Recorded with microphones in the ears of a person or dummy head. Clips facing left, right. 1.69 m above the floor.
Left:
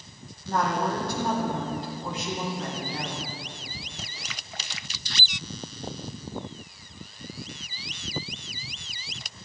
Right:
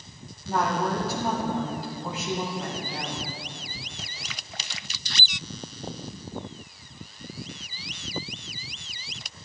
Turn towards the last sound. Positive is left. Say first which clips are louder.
# right 1 dB
turn(degrees=-5)  # may be behind; listen again after turning